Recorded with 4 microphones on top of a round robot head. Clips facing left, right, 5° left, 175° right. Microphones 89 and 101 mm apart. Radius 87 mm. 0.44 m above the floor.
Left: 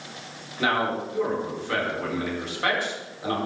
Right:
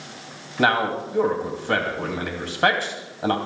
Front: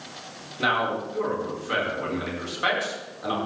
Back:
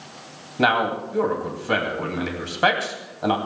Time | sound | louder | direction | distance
0.6 | a man speaking | right 4 dB, back 4 dB | 135° right | 3 m